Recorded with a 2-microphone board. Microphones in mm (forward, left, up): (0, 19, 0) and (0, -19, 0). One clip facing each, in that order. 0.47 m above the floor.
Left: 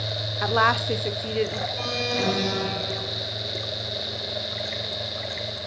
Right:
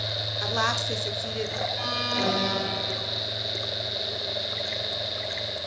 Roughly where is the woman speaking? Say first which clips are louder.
Left 6 dB; left.